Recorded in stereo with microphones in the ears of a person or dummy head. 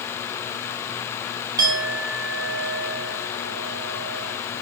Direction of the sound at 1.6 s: 15° right (ahead or behind).